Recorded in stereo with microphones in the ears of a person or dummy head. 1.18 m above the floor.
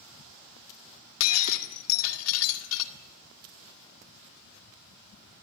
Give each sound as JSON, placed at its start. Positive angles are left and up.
{"t": 1.2, "sound": "breaking glass", "side_deg": 80, "distance_m": 2.0}